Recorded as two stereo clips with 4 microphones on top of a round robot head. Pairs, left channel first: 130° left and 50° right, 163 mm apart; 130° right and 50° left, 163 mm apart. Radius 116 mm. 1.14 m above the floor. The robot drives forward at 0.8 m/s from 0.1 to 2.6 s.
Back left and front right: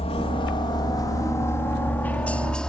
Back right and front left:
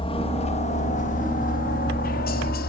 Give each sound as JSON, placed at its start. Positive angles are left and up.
{"t": 0.0, "sound": "a helicopter", "azimuth_deg": 180}